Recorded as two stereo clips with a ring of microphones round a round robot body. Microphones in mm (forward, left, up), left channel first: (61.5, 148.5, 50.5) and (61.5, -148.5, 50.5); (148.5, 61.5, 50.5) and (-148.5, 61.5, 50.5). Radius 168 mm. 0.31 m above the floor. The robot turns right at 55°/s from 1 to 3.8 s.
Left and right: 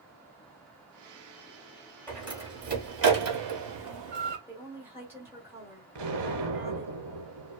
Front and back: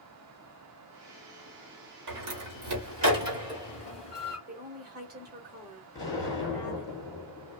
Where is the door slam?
175° left, 1.3 m; by 4.4 s 90° right, 1.3 m.